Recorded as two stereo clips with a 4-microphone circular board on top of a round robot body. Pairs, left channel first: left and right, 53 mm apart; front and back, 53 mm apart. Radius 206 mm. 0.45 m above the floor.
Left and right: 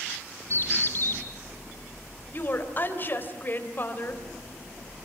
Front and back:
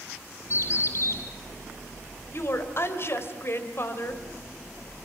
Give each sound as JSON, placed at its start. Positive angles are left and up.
{"t": 0.5, "sound": "a bird", "azimuth_deg": 40, "distance_m": 1.4}
{"t": 2.3, "sound": "a woman speaking", "azimuth_deg": 40, "distance_m": 3.5}